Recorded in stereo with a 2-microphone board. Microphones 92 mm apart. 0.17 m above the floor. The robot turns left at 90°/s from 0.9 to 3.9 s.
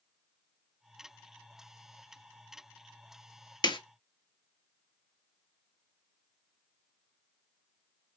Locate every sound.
3.6 s a snare drum: 45° left (ahead or behind), 0.6 m; by 3.8 s 60° left (ahead or behind), 0.6 m